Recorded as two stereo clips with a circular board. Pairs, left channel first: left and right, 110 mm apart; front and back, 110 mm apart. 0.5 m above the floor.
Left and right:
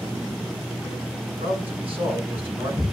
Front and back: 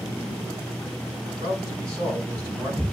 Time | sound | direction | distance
1.4 | a man speaking | 120° right | 6 m